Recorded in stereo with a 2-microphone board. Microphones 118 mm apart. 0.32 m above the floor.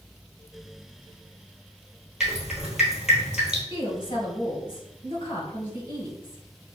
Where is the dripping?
5° right (ahead or behind), 1.3 m.